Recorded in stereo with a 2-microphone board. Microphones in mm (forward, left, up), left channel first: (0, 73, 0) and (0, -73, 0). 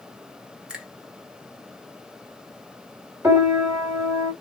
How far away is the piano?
About 2 m.